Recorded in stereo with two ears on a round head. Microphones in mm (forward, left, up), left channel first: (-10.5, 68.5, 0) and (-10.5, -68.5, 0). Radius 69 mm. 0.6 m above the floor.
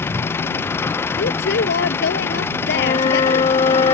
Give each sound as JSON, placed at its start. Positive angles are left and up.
{"t": 0.0, "sound": "an engine running", "side_deg": 15}
{"t": 1.2, "sound": "a woman speaking", "side_deg": 75}
{"t": 2.7, "sound": "a flute", "side_deg": 30}